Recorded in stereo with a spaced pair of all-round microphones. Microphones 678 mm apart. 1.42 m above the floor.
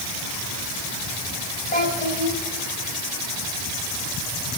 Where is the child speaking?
10° left (ahead or behind), 5 m.